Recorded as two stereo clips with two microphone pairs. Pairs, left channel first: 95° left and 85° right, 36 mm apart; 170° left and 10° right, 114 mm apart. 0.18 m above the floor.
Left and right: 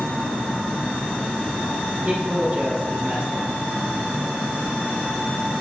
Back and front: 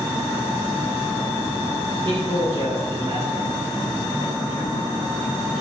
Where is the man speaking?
30° right, 5 m.